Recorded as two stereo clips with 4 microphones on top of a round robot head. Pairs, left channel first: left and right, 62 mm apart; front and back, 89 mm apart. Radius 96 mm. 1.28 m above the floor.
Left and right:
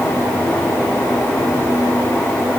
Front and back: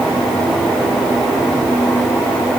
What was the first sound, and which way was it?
Only background noise.